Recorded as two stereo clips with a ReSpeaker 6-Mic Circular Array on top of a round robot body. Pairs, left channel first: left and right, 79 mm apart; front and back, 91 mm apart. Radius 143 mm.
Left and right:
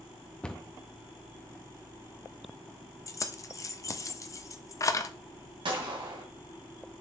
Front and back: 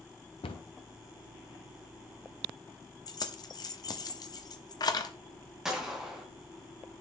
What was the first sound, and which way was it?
A cupboard door, 10° left.